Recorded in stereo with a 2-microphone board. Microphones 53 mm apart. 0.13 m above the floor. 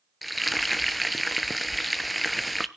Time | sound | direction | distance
0.2 | frying | centre (ahead or behind) | 0.5 m